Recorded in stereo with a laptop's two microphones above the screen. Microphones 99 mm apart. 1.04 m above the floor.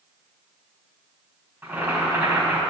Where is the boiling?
25° right (ahead or behind), 3.5 m.